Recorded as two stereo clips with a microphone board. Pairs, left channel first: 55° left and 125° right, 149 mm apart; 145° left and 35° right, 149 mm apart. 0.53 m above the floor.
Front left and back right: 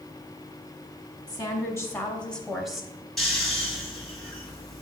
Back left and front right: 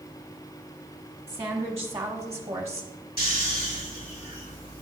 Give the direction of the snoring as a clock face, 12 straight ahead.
7 o'clock.